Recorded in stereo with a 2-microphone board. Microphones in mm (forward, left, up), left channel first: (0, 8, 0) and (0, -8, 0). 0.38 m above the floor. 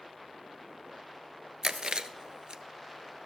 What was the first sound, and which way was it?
Chewing, 65° right (ahead or behind).